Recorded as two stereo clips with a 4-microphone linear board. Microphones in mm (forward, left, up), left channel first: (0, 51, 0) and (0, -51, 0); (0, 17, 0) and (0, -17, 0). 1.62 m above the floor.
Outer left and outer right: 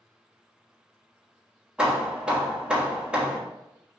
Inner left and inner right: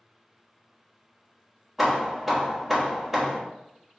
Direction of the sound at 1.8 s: 10° right (ahead or behind).